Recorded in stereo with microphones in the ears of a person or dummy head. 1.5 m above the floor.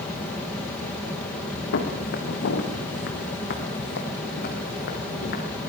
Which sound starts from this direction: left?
Footsteps, at 1.7 s.